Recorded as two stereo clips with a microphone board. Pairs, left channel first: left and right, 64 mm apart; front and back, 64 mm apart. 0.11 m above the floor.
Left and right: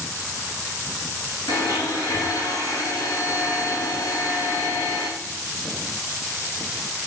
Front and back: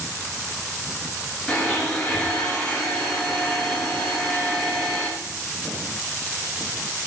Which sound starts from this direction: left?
A blender, at 1.5 s.